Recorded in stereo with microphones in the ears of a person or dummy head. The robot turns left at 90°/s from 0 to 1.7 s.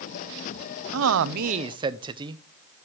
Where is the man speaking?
90° right, 0.6 m; by 2.4 s 155° right, 0.6 m.